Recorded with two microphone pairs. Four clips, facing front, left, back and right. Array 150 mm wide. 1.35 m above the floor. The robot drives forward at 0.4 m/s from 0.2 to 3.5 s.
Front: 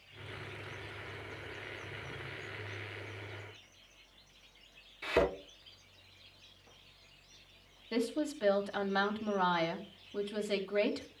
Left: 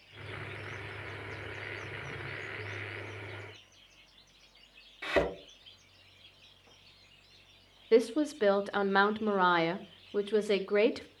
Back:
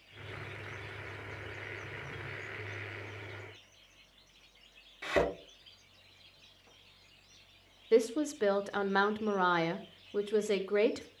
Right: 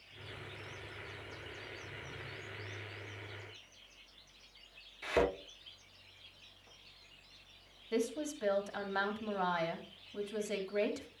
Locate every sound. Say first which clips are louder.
5.0 s a thud: left 2 dB, even; 125° left, 6 m
7.9 s a woman speaking: left 10 dB, back 6 dB; 110° left, 1.0 m